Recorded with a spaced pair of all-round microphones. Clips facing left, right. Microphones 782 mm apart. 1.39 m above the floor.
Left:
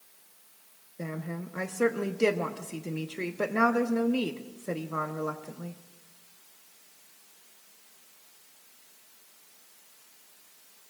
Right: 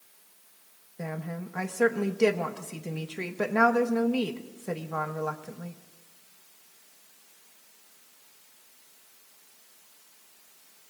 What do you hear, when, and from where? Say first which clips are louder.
1.0 s a woman speaking: even; 30° right (ahead or behind), 0.8 m